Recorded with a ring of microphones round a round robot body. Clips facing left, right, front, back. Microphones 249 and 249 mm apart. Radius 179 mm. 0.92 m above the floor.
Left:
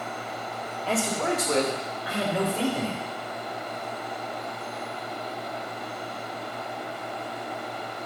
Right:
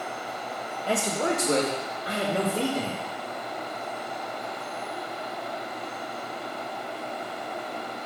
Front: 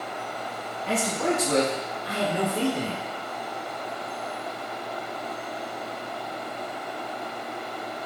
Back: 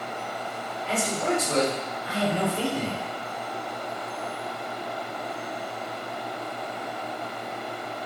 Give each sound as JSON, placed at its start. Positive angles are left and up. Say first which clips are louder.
{"t": 0.9, "sound": "a man speaking", "louder": "even, front 1 dB", "azimuth_deg": -15, "distance_m": 1.3}